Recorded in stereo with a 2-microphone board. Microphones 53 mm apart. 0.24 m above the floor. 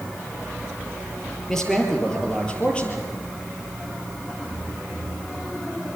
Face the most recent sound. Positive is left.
turn(degrees=25)  # may be behind; listen again after turning